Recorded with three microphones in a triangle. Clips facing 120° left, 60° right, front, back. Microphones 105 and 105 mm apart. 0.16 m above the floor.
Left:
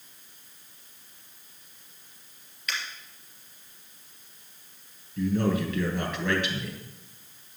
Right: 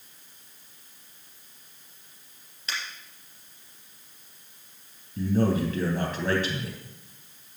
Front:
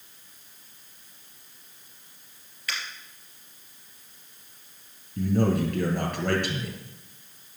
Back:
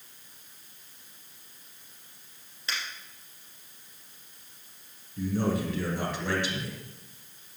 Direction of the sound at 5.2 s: 15° right.